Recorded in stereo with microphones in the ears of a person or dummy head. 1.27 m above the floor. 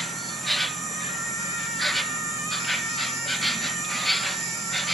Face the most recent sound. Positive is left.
turn(degrees=5)  # may be behind; listen again after turning